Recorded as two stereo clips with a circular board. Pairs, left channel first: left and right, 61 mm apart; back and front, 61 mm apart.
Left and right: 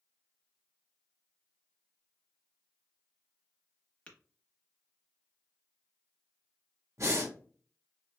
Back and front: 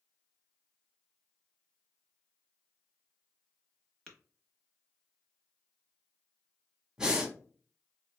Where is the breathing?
75° right, 0.8 m.